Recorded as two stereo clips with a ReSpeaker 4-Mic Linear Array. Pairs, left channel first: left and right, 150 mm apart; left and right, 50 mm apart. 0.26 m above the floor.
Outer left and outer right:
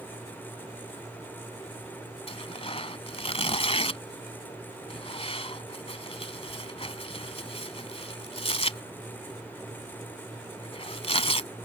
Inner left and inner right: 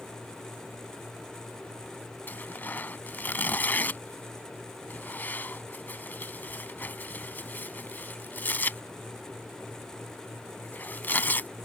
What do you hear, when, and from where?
2.3 s tearing paper: 40° left (ahead or behind)